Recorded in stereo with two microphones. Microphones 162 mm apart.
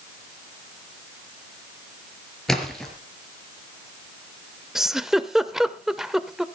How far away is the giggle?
About 0.7 m.